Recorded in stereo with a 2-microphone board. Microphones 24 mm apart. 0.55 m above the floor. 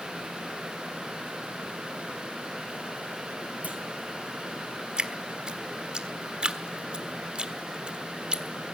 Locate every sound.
3.6 s a clunk: 75° right (ahead or behind), 4 m
5.0 s dripping: 40° right (ahead or behind), 1.3 m